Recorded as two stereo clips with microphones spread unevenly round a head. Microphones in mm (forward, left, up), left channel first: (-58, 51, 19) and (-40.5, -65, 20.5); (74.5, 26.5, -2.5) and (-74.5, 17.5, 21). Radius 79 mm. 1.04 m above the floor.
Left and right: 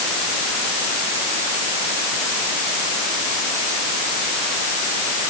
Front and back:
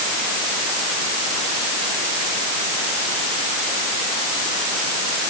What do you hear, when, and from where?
Only background noise.